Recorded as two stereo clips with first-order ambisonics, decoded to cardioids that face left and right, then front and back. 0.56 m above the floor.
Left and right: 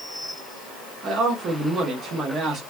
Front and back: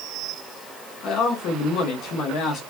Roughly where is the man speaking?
Ahead right.